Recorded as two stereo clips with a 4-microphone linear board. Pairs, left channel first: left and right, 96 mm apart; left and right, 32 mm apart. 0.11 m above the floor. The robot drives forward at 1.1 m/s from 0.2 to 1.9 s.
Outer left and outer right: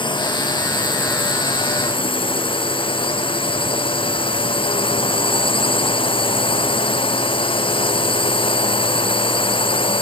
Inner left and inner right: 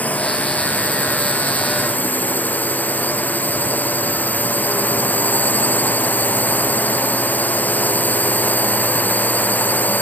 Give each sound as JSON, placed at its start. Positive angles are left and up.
{"t": 0.0, "sound": "a drone", "side_deg": 55}